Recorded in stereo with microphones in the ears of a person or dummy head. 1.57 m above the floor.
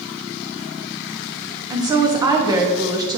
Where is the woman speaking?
20° right (ahead or behind), 0.9 m.